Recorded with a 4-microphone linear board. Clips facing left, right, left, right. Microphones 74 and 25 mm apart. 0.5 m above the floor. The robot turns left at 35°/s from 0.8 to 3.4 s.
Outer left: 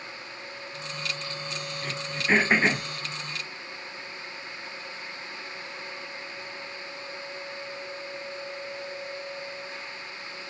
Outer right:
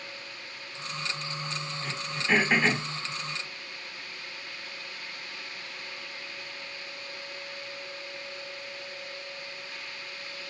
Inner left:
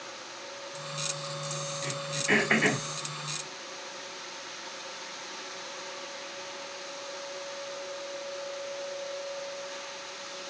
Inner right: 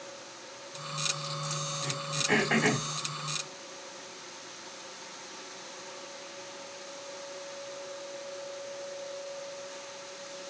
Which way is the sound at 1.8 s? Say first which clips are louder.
Outer left 3 dB, inner left 2 dB; 45° left (ahead or behind).